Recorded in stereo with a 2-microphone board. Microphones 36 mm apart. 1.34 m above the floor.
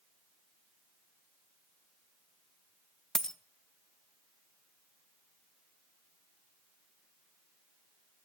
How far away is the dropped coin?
About 0.6 m.